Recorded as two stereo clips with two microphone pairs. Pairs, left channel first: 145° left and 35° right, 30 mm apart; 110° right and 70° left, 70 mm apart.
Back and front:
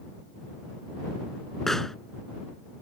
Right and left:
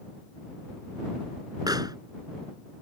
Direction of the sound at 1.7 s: 65° left.